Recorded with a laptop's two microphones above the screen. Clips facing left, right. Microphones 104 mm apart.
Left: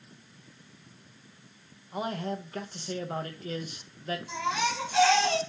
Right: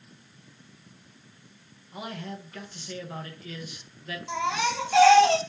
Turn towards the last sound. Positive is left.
turn(degrees=-75)  # may be behind; listen again after turning